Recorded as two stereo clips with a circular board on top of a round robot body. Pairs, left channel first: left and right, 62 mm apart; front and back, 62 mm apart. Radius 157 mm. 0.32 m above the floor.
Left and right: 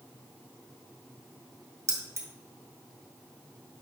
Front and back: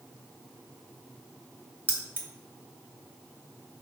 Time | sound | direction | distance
1.9 | keys jangling | 120° right | 1.9 m